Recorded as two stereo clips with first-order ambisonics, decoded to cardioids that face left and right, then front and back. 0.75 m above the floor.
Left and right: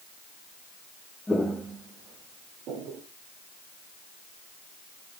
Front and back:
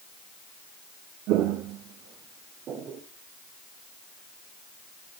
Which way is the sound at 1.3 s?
170° left.